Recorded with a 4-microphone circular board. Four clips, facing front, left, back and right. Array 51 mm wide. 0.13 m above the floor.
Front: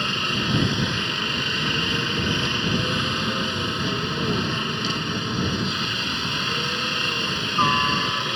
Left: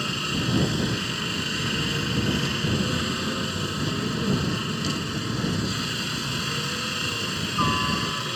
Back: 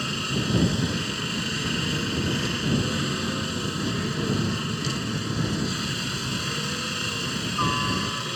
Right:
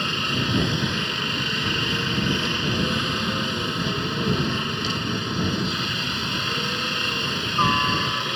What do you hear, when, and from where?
0.0 s a helicopter: 30° right